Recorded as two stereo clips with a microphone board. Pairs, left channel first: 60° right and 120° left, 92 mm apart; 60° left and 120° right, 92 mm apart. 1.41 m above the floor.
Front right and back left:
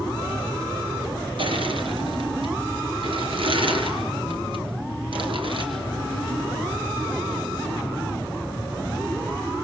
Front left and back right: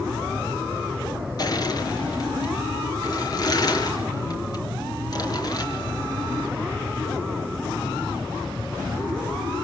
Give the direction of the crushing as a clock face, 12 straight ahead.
9 o'clock.